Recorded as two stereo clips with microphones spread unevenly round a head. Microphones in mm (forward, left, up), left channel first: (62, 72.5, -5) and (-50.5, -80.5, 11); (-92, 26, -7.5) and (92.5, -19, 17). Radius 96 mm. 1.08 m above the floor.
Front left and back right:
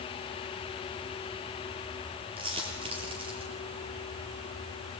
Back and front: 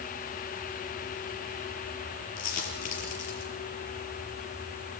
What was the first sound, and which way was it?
A dropped coin, 170° left.